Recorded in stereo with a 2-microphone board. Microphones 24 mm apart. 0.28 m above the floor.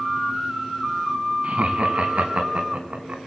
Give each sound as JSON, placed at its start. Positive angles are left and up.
{"t": 1.4, "sound": "laughter", "side_deg": -55, "distance_m": 2.0}